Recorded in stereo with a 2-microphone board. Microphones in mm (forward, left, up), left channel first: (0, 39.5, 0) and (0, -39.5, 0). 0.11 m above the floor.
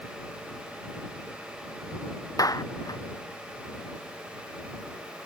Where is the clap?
50° left (ahead or behind).